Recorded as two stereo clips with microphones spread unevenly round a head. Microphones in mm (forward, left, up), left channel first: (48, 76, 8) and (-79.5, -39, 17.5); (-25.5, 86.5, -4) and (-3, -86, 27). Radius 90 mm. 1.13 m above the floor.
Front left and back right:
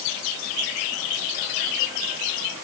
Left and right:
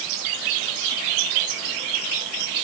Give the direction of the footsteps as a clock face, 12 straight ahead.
No footsteps in this recording.